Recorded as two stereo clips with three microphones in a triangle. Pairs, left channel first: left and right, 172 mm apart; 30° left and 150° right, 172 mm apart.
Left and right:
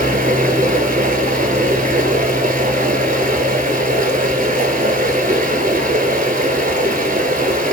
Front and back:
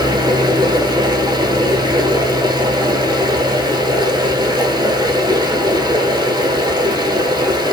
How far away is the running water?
About 1.0 m.